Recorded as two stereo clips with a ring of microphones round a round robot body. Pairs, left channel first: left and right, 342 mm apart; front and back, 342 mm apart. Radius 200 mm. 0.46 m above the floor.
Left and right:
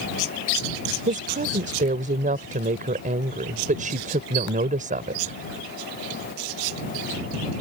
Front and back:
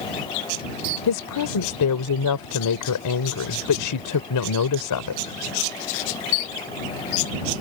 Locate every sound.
1.1 s a woman speaking: 25° right